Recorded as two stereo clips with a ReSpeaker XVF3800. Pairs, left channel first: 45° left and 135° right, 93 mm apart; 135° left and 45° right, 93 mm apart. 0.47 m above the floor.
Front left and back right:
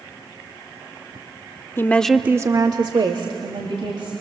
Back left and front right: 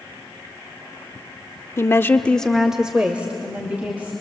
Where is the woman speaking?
95° left, 1.0 m; by 4.1 s 115° right, 3 m.